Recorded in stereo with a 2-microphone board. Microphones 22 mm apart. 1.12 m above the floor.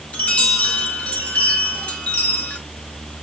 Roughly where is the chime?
Left.